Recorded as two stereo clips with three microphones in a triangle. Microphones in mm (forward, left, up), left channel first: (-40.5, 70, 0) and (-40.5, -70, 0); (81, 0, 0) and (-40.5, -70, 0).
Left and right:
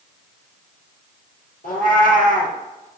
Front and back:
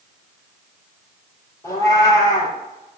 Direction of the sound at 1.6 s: 100° left.